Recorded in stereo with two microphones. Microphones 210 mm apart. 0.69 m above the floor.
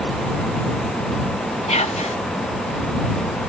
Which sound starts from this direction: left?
Whispering, at 1.7 s.